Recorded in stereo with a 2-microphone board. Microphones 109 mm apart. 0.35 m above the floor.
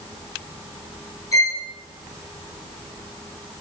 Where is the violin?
30° left (ahead or behind), 0.9 m.